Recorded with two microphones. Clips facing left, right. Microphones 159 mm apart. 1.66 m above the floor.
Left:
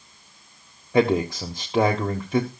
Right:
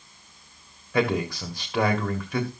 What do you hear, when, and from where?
0.9 s a man speaking: 25° left (ahead or behind), 1.3 m